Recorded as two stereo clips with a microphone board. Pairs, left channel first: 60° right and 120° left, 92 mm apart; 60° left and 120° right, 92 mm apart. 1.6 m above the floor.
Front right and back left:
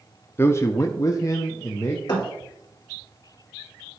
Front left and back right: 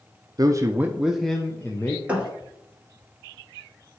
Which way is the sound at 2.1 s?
45° right.